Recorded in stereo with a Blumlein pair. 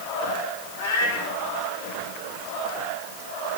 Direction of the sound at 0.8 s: 55° left.